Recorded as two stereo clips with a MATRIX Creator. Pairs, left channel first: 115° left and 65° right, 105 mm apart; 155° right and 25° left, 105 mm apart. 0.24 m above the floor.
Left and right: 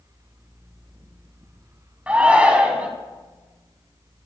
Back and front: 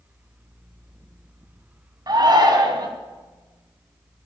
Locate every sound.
2.1 s a shout: 5° left, 1.7 m